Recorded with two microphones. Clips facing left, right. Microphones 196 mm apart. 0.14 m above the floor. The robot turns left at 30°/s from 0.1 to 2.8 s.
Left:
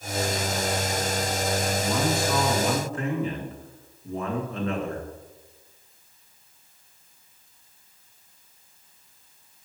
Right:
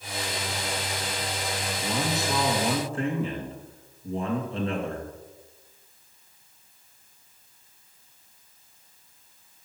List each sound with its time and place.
1.8 s a man speaking: 15° right (ahead or behind), 2 m; by 5.1 s 30° right (ahead or behind), 2 m